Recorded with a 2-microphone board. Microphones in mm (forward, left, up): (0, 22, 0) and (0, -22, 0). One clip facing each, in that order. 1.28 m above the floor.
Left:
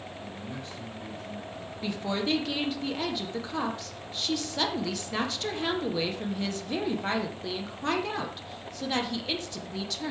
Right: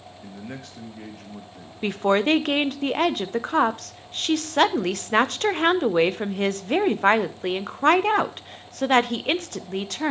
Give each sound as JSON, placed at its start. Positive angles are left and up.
{"t": 0.2, "sound": "a man speaking", "side_deg": -85, "distance_m": 1.3}
{"t": 1.8, "sound": "a woman speaking", "side_deg": -50, "distance_m": 0.5}